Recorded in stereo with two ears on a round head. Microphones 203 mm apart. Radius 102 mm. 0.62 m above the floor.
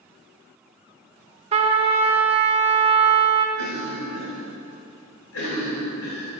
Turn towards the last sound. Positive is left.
turn(degrees=70)  # may be behind; listen again after turning